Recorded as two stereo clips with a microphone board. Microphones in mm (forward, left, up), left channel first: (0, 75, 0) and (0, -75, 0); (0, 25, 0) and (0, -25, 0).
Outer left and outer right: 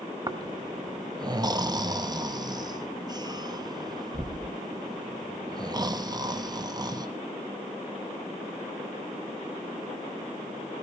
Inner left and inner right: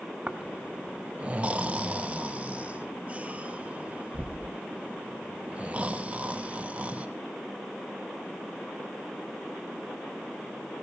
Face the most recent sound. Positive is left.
turn(degrees=-25)  # may be behind; listen again after turning